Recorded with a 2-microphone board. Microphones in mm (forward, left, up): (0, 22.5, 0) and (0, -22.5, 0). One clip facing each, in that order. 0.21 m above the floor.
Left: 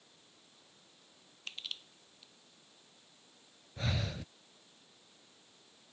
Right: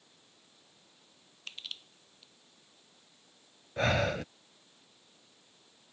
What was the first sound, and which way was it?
Crushing, centre (ahead or behind).